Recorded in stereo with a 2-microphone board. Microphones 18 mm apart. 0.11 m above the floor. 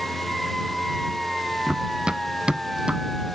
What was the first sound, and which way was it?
Running footsteps, 55° right (ahead or behind).